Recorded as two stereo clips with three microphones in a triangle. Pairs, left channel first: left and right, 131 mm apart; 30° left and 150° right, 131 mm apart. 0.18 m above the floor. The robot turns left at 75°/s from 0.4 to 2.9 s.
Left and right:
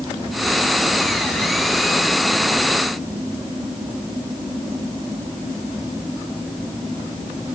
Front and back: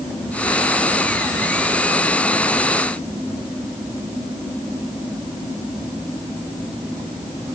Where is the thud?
I don't hear a thud.